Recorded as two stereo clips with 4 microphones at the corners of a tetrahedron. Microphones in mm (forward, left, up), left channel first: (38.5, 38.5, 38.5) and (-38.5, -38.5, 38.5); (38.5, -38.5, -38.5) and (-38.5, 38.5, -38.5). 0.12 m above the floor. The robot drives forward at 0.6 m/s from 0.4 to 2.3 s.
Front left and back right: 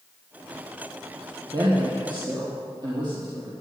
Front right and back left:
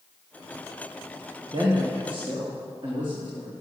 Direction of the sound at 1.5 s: 175° left.